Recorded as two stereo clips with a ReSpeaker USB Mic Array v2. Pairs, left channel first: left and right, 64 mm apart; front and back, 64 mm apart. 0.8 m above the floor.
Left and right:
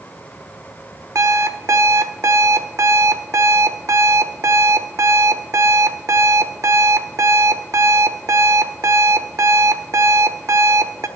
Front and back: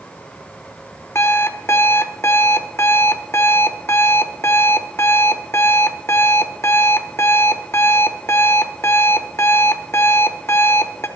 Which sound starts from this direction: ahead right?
An alarm clock, at 1.1 s.